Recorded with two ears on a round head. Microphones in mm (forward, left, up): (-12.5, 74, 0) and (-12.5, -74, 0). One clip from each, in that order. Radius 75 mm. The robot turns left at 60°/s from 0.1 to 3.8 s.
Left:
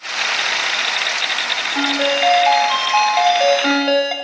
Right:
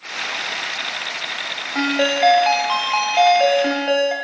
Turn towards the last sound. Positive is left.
turn(degrees=155)